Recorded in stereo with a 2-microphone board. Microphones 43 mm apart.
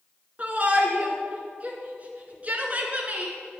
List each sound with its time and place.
0.4 s a shout: 35° right (ahead or behind), 2.5 m